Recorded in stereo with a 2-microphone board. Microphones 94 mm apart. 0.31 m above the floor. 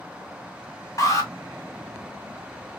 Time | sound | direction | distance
1.0 | an alarm | 40° left (ahead or behind) | 1.6 m